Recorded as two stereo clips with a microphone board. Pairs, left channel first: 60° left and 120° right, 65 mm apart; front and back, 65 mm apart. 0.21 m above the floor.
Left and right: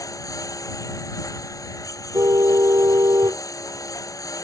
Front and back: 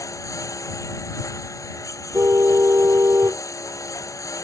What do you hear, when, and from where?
0.0 s a lawn mower: 35° left
2.1 s a car horn: 135° right